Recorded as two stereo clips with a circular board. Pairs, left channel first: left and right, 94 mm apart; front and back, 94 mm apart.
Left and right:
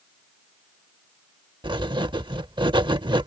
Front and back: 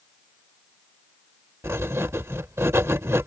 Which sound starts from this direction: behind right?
Writing, at 1.6 s.